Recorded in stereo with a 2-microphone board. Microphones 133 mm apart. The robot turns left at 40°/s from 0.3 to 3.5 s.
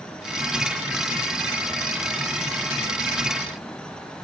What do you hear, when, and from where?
Only background noise.